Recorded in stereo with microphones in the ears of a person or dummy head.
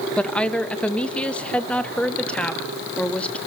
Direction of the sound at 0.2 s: 5° left (ahead or behind).